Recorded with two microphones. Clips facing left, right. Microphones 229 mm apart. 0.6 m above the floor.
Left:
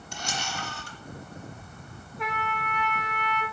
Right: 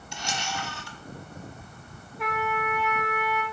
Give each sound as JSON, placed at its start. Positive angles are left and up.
{"t": 0.1, "sound": "a camera shutter", "side_deg": 55, "distance_m": 1.2}
{"t": 2.2, "sound": "a trumpet", "side_deg": 0, "distance_m": 0.9}